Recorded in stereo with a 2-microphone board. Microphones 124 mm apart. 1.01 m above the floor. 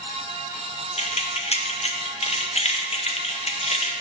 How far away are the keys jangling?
About 0.6 m.